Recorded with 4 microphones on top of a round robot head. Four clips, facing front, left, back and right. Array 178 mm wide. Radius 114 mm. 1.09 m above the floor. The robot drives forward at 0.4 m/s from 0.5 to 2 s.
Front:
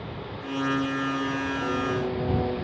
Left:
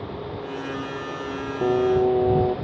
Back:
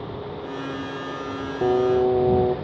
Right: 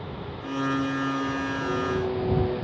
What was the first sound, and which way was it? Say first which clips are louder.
Singing: left 11 dB, back 12 dB; 145° left.